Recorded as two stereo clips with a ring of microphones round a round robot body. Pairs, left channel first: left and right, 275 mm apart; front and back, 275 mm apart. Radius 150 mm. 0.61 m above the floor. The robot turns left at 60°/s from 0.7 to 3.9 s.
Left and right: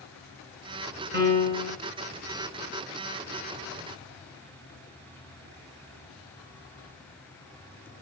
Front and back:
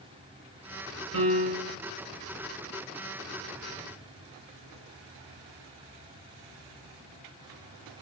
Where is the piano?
145° right, 3 m; by 1.8 s straight behind, 3 m.